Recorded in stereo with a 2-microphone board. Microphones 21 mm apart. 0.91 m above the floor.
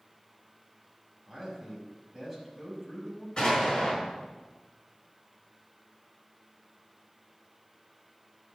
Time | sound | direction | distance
1.3 | a man speaking | 5° left (ahead or behind) | 5 m
3.4 | an explosion | 45° left (ahead or behind) | 5.5 m